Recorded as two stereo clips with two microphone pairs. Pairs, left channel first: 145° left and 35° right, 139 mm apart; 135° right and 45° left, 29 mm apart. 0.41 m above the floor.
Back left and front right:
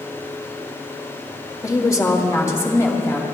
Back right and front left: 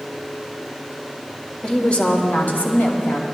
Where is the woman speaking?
175° right, 0.9 m; by 3.2 s 145° right, 2 m.